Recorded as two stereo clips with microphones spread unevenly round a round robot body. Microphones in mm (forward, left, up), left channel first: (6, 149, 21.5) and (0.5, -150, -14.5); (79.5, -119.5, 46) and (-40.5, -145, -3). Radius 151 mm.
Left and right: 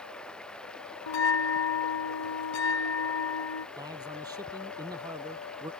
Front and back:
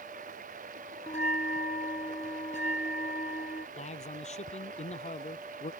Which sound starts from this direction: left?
A bell, at 1.1 s.